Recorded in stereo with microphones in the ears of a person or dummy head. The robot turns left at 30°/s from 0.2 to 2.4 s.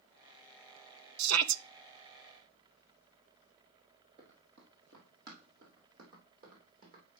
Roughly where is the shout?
Right.